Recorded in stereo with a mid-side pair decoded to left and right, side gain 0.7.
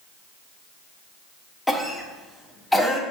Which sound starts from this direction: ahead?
A cough, at 1.7 s.